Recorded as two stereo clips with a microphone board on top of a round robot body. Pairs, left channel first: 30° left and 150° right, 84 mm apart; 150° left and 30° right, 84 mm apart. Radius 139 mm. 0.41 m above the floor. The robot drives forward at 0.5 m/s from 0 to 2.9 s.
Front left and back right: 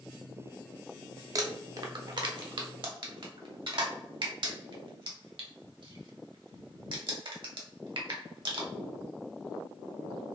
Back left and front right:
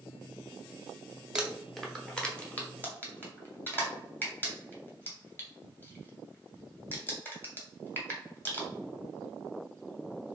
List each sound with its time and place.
1.4 s crumpling: 110° right, 1.0 m; by 8.7 s 145° right, 1.4 m